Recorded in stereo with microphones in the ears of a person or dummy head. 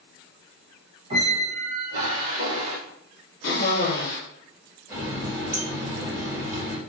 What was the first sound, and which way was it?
A squeak, 30° right (ahead or behind).